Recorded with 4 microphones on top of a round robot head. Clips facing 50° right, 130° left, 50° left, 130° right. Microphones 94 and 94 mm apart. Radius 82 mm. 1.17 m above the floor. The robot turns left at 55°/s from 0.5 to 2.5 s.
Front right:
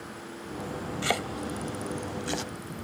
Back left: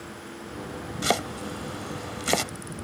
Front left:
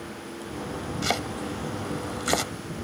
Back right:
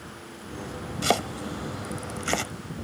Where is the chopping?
165° right; by 2.5 s 115° left.